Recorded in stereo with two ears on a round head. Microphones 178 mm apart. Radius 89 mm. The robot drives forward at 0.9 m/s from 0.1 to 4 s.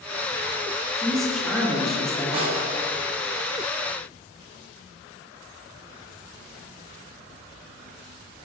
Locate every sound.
1.0 s a woman speaking: centre (ahead or behind), 3 m
2.3 s a snare drum: 30° right (ahead or behind), 3 m